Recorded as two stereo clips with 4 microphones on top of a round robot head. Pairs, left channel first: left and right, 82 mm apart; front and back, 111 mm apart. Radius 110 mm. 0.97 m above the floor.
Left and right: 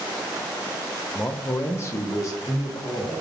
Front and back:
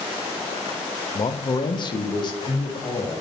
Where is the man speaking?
30° left, 0.7 m; by 3.2 s 40° left, 2.5 m.